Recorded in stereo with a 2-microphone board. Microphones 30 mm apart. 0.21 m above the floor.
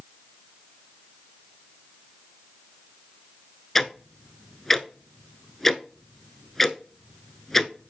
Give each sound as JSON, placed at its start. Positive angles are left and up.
{"t": 3.8, "sound": "ticking", "side_deg": 5, "distance_m": 0.6}